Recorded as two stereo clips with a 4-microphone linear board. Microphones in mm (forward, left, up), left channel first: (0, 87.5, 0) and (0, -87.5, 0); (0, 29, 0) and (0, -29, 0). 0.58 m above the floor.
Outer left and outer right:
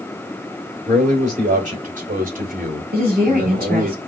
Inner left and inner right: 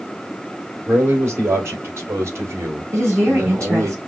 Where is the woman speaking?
55° right (ahead or behind), 3 m.